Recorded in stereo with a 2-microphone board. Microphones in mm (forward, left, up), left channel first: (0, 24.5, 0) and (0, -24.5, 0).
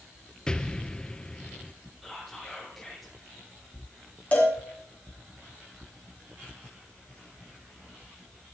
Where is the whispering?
5° left (ahead or behind), 6 m.